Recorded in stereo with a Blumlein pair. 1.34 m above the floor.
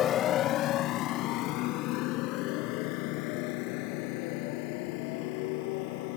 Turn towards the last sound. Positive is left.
turn(degrees=45)